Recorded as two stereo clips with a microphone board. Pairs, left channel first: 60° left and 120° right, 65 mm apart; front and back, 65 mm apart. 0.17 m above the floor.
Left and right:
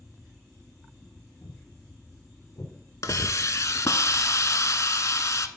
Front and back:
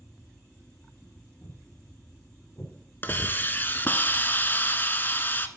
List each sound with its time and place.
1.4 s footsteps: 40° left, 5 m; by 2.7 s 55° left, 4.5 m
3.0 s a hiss: 50° left, 0.6 m